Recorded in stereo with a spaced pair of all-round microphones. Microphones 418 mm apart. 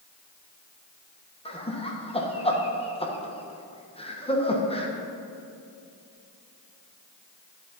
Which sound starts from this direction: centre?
Laughter, at 1.4 s.